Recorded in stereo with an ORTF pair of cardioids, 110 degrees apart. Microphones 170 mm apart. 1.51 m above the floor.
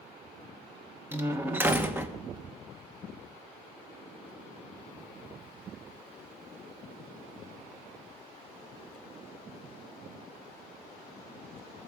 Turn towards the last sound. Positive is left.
turn(degrees=-10)